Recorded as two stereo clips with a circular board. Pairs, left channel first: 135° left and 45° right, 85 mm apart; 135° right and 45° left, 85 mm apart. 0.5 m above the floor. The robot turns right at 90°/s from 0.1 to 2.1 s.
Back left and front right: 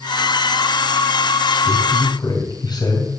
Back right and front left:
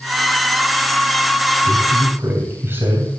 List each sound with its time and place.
1.6 s a man speaking: 65° left, 3 m; by 3.2 s 105° left, 3 m